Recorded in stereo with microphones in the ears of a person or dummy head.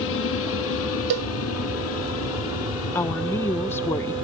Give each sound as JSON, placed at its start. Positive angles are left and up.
{"t": 0.0, "sound": "an aircraft", "side_deg": 70}
{"t": 1.1, "sound": "a cowbell", "side_deg": -60}
{"t": 3.0, "sound": "a woman speaking", "side_deg": 20}